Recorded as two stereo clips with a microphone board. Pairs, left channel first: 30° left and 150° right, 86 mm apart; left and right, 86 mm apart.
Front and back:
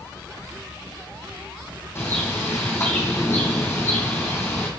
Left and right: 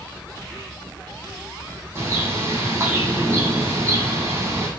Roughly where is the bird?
Ahead right.